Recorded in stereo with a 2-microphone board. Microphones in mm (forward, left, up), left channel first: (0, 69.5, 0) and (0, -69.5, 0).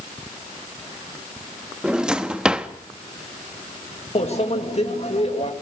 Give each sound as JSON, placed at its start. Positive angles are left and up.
{"t": 1.8, "sound": "a drawer", "side_deg": -5, "distance_m": 1.1}
{"t": 4.2, "sound": "a microwave", "side_deg": 50, "distance_m": 2.5}